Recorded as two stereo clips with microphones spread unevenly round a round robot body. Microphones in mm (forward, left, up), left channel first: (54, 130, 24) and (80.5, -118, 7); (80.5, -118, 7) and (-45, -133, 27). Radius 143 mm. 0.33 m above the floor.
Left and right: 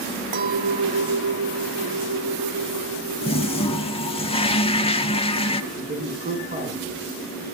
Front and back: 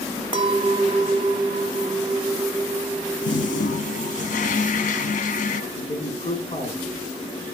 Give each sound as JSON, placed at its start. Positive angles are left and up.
{"t": 0.3, "sound": "a clink", "azimuth_deg": -130, "distance_m": 1.2}
{"t": 3.2, "sound": "a toilet flushing", "azimuth_deg": 25, "distance_m": 0.9}
{"t": 5.7, "sound": "a man speaking", "azimuth_deg": -25, "distance_m": 3.5}